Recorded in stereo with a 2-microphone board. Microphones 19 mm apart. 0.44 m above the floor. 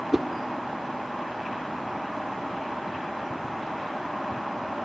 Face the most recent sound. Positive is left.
turn(degrees=-25)  # may be behind; listen again after turning